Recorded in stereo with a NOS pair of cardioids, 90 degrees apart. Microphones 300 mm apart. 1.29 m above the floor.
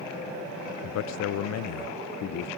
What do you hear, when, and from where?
0.8 s a man speaking: 60° left, 0.6 m